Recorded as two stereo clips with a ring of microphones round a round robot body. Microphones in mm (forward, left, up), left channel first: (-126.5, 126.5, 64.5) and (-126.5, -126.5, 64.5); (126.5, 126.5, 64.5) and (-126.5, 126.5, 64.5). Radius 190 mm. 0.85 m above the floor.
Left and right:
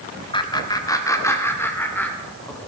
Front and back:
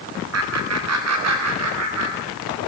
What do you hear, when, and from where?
0.3 s laughter: 160° left, 2 m; by 2.7 s 175° left, 4 m